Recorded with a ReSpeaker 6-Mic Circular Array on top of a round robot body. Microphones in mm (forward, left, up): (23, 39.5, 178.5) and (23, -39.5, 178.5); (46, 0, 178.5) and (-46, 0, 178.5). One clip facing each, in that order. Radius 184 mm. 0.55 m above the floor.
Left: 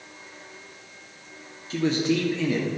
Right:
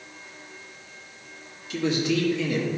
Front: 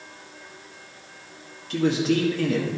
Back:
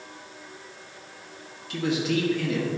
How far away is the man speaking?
About 1.4 m.